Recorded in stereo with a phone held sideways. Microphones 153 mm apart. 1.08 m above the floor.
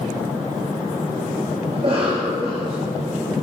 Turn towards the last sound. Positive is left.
turn(degrees=-45)  # may be behind; listen again after turning